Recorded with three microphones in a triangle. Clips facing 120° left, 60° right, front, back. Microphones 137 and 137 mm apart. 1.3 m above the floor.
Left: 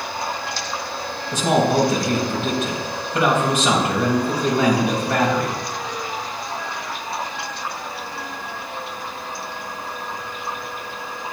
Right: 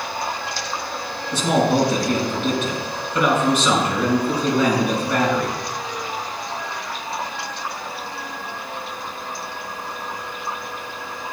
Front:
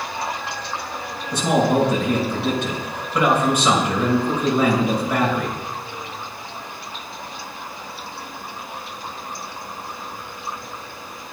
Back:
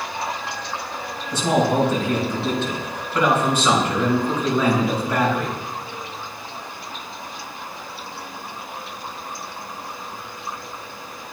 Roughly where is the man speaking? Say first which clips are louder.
Even, front 1 dB; left.